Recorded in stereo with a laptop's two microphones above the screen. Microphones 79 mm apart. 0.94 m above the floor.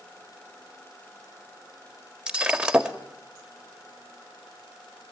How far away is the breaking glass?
About 1.4 m.